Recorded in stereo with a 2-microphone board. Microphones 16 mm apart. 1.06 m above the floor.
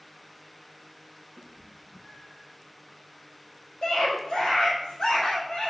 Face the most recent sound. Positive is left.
turn(degrees=70)  # may be behind; listen again after turning